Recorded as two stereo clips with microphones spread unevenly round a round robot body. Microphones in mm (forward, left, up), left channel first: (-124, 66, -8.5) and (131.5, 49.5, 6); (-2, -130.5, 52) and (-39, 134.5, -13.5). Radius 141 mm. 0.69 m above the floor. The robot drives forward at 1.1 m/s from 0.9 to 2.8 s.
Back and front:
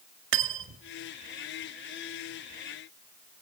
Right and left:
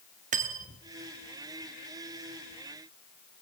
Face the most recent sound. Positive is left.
turn(degrees=155)